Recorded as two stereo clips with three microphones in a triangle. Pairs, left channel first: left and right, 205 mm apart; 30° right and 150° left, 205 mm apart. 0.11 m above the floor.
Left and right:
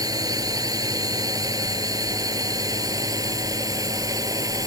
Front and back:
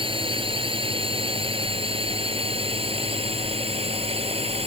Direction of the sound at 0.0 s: 155° right.